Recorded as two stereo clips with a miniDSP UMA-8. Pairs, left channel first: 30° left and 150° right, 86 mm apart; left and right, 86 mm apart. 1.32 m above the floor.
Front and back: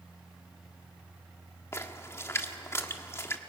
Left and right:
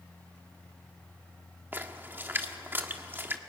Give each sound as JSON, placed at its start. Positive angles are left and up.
{"t": 1.7, "sound": "a splash", "azimuth_deg": -25, "distance_m": 1.5}